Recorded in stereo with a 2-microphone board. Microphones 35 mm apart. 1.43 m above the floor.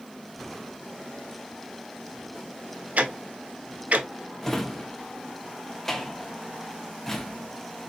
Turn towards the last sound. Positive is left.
turn(degrees=10)  # may be behind; listen again after turning